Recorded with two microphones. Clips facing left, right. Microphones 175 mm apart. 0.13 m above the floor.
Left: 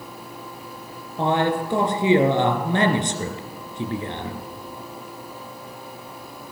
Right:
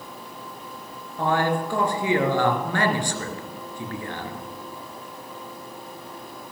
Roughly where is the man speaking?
Left.